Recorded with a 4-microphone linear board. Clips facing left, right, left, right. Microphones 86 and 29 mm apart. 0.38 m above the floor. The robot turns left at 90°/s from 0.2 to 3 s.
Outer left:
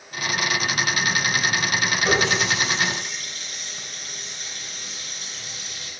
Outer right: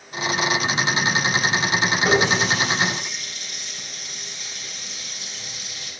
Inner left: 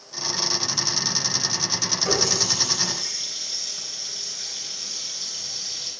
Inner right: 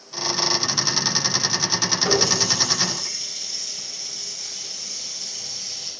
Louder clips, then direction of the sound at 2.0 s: Outer right 2 dB, inner right 2 dB; 30° right (ahead or behind).